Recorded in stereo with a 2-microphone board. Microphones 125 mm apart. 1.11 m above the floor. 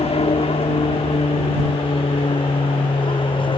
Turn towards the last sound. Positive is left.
turn(degrees=40)  # may be behind; listen again after turning